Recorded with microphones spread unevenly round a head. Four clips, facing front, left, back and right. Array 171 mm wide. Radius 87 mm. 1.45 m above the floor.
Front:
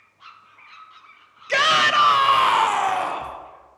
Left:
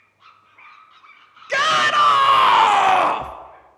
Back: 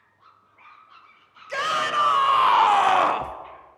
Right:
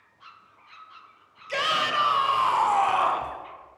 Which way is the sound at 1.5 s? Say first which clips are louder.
Left 8 dB, front 6 dB; 40° left.